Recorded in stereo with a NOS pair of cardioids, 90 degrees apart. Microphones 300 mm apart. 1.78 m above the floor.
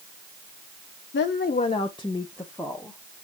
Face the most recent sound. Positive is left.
turn(degrees=0)